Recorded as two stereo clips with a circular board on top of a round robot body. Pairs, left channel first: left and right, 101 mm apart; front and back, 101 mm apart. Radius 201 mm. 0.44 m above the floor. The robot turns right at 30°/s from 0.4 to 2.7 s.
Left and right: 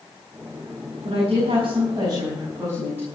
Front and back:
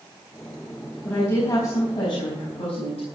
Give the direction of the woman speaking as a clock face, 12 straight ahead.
2 o'clock.